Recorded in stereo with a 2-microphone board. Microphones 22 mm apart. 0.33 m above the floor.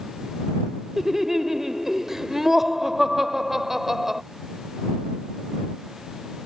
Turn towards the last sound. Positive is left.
turn(degrees=-20)  # may be behind; listen again after turning